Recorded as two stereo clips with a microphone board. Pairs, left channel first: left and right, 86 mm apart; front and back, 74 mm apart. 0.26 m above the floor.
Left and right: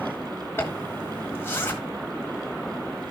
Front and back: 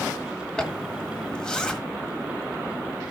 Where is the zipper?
65° left, 1.7 m.